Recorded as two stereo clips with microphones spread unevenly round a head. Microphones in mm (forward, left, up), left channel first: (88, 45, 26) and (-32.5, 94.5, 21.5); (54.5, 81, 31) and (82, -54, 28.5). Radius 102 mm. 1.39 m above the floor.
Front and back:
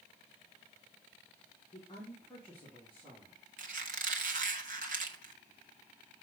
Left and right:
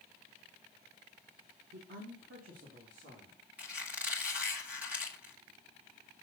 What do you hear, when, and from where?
1.7 s a woman speaking: 85° right, 1.1 m; by 3.4 s 115° right, 3 m
3.6 s a squeak: 160° right, 0.9 m